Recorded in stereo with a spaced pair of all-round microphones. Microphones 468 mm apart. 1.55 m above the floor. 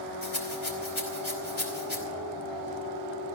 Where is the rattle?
75° left (ahead or behind), 3 m.